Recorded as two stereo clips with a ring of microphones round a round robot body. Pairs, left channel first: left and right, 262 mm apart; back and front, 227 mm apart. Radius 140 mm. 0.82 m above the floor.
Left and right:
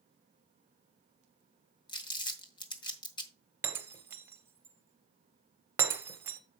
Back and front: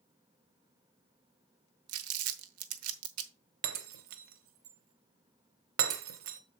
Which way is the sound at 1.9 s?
15° left.